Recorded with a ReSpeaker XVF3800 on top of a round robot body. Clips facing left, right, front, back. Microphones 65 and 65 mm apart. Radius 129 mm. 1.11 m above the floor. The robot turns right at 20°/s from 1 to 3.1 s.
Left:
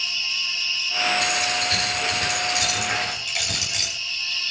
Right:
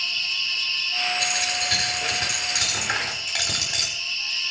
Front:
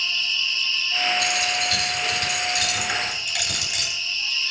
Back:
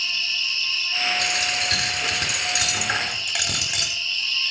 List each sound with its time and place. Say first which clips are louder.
0.0 s an insect: even, front 1 dB; 165° left, 2.5 m; by 4.5 s 150° right, 2.5 m
1.2 s a dropped coin: left 3 dB, front 1 dB; 175° left, 9 m; by 3.9 s 145° right, 9 m